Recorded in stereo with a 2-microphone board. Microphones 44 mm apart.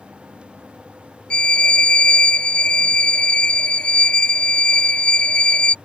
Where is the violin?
20° left (ahead or behind).